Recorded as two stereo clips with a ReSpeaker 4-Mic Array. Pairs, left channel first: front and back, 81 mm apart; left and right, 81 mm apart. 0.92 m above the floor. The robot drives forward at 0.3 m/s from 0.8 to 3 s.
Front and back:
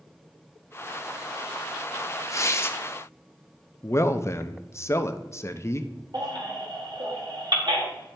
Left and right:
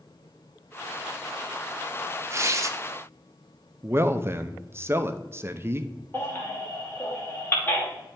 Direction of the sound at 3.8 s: 40° right.